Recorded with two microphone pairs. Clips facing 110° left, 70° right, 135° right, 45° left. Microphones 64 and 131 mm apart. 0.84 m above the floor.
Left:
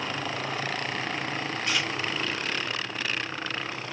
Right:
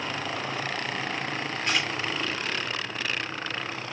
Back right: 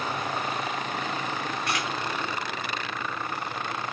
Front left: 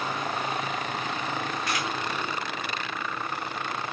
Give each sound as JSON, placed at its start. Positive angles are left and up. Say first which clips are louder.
{"t": 1.7, "sound": "a camera shutter", "louder": "right 2 dB, back right 1 dB", "azimuth_deg": -105, "distance_m": 1.1}